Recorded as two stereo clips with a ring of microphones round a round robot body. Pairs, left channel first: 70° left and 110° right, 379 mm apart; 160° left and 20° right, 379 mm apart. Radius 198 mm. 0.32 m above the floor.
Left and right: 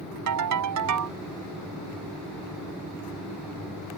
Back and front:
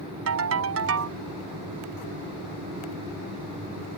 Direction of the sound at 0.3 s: 70° right.